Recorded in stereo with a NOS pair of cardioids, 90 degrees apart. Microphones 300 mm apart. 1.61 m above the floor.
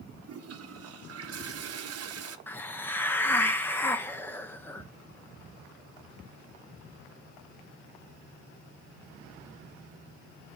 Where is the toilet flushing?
55° right, 1.0 m.